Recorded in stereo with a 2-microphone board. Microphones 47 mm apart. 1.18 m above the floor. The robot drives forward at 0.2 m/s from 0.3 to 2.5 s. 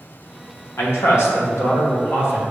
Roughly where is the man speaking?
Left.